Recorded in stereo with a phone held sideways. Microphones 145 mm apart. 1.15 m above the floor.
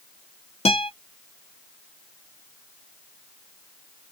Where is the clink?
I don't hear a clink.